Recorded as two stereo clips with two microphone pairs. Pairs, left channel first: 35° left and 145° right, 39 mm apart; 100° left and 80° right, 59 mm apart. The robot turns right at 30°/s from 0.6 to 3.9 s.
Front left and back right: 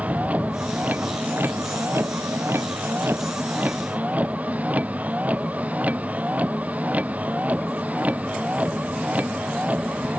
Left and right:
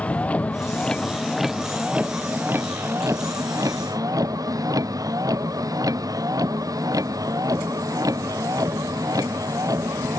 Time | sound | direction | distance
0.0 | a vehicle | 165° left | ?